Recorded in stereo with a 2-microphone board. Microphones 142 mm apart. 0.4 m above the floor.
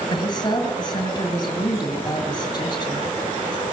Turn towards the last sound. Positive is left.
turn(degrees=30)  # may be behind; listen again after turning